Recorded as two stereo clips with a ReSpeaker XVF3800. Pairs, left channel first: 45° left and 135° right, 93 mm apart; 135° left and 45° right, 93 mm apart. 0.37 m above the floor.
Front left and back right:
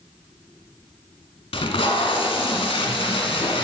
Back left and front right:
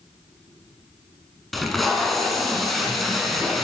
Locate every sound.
1.5 s tape being pulled: 45° left, 0.8 m